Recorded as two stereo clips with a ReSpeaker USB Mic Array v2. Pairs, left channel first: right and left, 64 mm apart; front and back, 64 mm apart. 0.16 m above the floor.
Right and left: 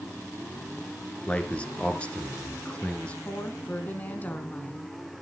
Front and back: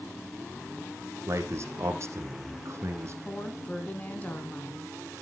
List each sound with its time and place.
1.3 s a man speaking: 155° right, 2.0 m
3.2 s a woman speaking: 45° right, 1.5 m